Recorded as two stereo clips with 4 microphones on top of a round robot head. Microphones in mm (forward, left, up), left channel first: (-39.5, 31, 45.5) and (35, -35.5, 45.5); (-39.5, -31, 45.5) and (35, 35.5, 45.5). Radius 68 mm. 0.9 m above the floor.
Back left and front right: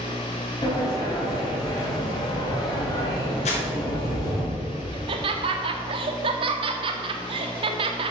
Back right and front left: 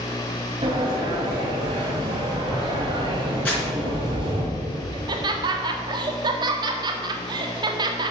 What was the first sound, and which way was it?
A sliding door, 85° left.